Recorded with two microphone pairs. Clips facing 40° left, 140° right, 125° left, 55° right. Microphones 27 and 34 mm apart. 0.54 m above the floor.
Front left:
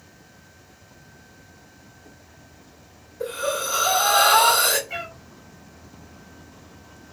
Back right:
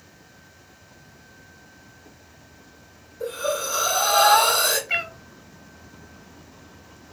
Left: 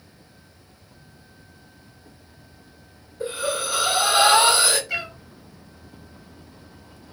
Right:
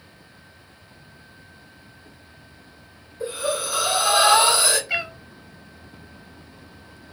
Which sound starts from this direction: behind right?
A cat meowing, at 4.9 s.